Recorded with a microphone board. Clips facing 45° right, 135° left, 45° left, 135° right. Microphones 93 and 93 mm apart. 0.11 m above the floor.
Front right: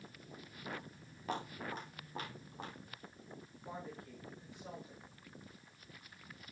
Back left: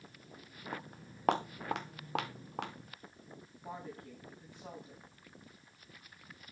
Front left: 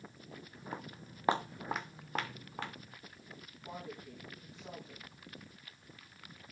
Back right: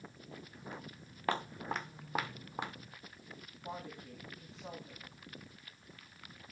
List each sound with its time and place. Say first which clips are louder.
0.7 s footsteps: back left 3 dB, front left 4 dB; 90° left, 0.9 m; by 2.9 s 155° left, 1.7 m
3.6 s a woman speaking: back left 2 dB, back right 1 dB; 165° left, 8 m